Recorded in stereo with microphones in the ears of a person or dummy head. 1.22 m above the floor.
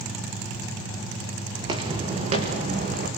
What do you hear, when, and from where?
1.6 s footsteps: 20° right (ahead or behind), 4 m; by 3.1 s 45° right (ahead or behind), 4 m